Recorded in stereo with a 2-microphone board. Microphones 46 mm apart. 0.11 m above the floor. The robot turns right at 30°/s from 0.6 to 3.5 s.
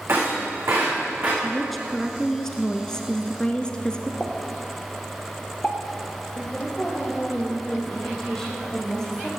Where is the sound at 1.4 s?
5° right (ahead or behind), 1.1 m; by 4.1 s 20° left (ahead or behind), 1.1 m.